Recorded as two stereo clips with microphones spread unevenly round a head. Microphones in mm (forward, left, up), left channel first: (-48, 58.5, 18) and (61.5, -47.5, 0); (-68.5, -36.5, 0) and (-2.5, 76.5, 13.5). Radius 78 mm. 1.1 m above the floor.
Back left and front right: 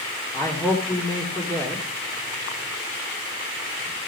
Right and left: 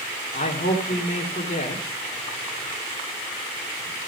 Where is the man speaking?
150° right, 2.5 m.